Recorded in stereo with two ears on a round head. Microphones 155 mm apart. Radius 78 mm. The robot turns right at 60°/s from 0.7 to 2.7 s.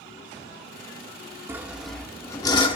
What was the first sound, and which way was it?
Sawing, 20° right.